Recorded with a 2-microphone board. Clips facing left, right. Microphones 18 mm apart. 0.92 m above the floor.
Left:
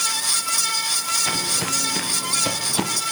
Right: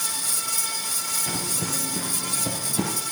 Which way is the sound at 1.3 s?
40° left (ahead or behind).